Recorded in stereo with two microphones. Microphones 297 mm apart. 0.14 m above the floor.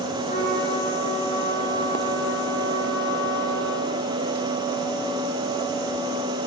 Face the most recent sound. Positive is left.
turn(degrees=20)  # may be behind; listen again after turning